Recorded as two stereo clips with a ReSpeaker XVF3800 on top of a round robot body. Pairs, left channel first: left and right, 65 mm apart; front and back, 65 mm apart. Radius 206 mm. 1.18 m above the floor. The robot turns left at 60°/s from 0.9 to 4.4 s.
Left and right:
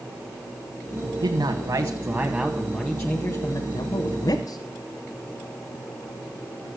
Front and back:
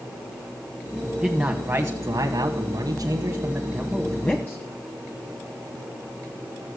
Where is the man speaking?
100° right, 1.3 m; by 4.6 s 65° left, 1.3 m.